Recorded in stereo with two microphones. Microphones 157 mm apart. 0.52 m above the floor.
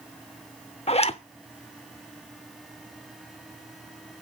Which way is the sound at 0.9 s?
40° left (ahead or behind).